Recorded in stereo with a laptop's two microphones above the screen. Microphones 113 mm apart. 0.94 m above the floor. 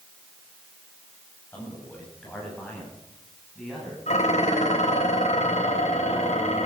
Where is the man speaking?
15° left (ahead or behind), 6.5 m; by 4.0 s centre (ahead or behind), 8.5 m.